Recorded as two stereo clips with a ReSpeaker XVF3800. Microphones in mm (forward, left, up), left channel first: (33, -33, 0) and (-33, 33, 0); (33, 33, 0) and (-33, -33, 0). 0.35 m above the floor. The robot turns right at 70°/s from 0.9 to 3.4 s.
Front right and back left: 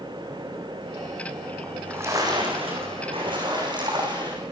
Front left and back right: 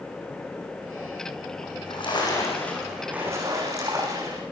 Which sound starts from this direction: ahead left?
A splash, at 1.6 s.